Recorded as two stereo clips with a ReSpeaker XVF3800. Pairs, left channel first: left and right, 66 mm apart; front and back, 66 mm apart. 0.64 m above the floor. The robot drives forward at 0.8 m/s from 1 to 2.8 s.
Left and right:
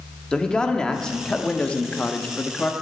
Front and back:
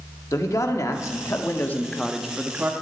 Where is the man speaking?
15° left, 1.2 m; by 2.7 s 150° left, 0.9 m.